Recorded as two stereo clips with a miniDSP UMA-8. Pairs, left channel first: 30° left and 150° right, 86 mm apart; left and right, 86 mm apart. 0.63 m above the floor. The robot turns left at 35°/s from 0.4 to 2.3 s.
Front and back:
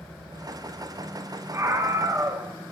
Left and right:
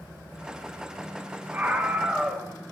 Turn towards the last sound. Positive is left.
turn(degrees=-170)